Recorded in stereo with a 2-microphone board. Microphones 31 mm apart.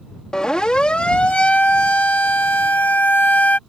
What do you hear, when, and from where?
0.3 s a siren: 25° left (ahead or behind); by 3.6 s 85° left